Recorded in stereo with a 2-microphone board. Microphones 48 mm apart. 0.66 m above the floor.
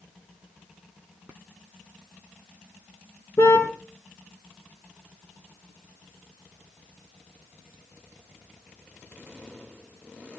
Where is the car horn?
70° left (ahead or behind), 3.5 m.